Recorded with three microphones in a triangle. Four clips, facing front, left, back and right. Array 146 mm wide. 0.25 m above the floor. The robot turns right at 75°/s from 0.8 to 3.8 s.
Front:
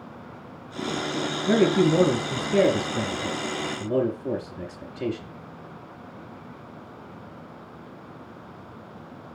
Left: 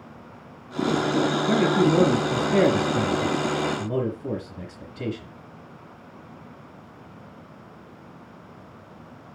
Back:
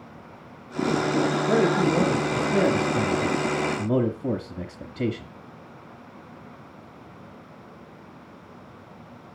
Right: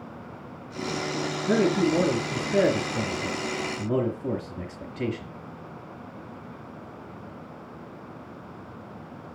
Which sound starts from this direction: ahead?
A man speaking, at 1.5 s.